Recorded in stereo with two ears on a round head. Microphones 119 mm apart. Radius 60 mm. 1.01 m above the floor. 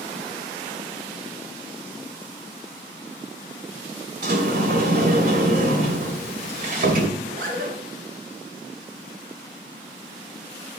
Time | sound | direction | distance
4.2 | a sliding door | 75° right (ahead or behind) | 2.5 m
7.2 | a zipper | 75° right (ahead or behind) | 3 m